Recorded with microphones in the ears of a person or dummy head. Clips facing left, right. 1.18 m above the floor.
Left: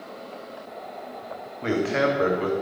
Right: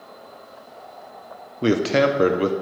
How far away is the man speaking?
About 0.6 m.